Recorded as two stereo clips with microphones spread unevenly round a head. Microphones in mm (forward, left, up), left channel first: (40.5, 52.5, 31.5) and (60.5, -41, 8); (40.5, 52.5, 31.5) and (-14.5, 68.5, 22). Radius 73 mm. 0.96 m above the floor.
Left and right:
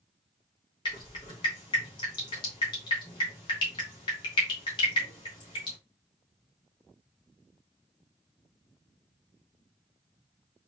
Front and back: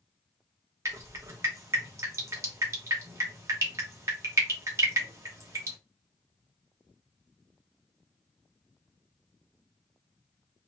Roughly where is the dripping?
Behind.